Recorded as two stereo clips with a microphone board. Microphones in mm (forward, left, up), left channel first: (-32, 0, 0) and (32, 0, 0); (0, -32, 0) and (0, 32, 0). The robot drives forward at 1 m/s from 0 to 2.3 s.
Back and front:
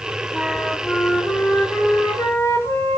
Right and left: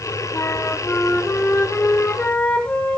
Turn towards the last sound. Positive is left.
turn(degrees=-150)